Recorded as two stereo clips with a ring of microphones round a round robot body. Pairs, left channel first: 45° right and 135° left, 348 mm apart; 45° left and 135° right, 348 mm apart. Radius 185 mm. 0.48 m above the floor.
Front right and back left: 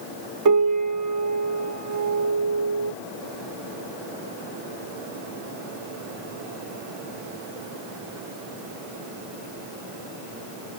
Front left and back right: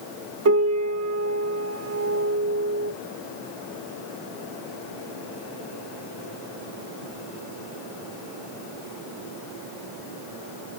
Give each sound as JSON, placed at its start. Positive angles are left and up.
{"t": 0.5, "sound": "a piano", "azimuth_deg": 175, "distance_m": 0.6}